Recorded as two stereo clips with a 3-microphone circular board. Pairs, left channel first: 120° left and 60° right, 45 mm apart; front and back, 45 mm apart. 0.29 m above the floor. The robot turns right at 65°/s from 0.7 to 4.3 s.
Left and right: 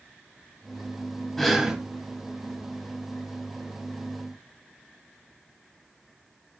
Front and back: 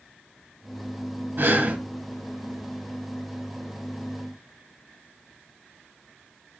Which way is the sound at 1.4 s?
160° right.